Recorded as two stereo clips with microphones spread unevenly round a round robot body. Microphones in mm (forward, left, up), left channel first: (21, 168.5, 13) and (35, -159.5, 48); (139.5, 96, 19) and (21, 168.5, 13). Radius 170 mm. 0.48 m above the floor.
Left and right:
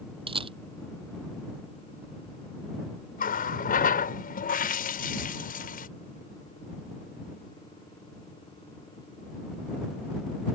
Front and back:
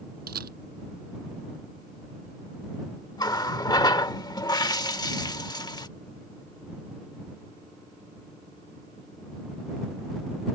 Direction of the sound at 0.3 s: 165° right.